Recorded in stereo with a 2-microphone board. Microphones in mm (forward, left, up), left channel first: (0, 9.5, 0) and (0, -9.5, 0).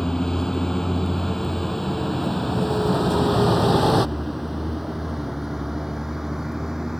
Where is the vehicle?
30° left (ahead or behind); by 7.0 s 20° right (ahead or behind).